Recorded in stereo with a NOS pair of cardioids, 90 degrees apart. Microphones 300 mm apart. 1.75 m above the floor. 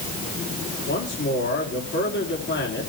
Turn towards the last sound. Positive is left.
turn(degrees=40)